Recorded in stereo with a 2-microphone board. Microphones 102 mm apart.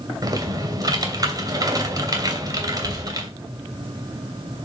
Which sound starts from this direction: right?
Typing on a keyboard, at 0.2 s.